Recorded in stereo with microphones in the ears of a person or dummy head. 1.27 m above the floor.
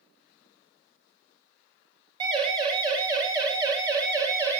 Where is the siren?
25° right (ahead or behind), 8 m; by 4.6 s 15° right (ahead or behind), 6 m.